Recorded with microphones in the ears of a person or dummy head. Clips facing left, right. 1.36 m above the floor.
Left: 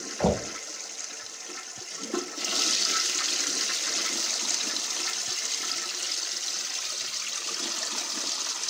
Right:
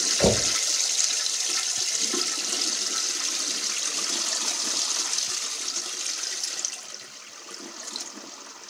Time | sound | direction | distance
0.2 | knocking | 30° right (ahead or behind) | 0.5 m